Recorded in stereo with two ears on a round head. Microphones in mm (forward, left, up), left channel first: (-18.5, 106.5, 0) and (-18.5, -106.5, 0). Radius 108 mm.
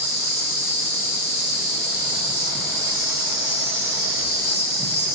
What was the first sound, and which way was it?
An insect, 45° left (ahead or behind).